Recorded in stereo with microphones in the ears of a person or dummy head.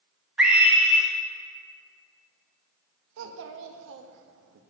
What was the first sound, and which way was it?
A scream, 5° right (ahead or behind).